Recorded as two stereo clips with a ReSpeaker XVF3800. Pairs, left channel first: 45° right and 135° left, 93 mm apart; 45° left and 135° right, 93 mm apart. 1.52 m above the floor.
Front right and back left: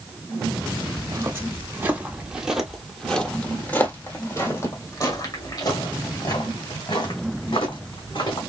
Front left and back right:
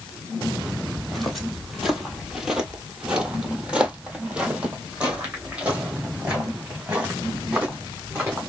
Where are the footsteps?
135° left, 1.8 m; by 8.4 s 60° right, 4 m.